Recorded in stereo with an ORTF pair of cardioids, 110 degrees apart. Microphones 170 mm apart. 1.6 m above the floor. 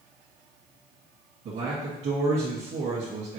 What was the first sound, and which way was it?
A man speaking, 55° right.